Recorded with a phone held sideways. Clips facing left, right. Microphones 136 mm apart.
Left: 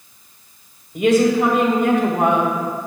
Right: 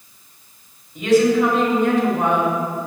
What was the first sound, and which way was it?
A woman speaking, 70° left (ahead or behind).